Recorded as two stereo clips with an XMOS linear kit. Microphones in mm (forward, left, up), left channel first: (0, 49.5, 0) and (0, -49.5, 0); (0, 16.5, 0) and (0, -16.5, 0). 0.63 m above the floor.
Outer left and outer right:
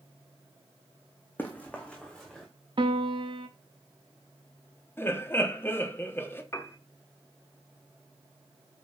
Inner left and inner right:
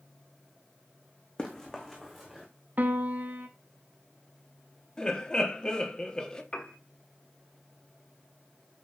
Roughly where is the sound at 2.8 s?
Right.